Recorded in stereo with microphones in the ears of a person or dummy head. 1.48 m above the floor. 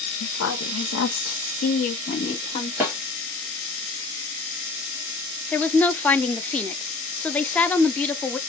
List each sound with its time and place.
0.2 s a woman speaking: 70° left (ahead or behind), 1.4 m; by 2.7 s 25° left (ahead or behind), 1.3 m
2.8 s a snare drum: 10° right (ahead or behind), 2 m
5.5 s a woman speaking: 10° left (ahead or behind), 0.5 m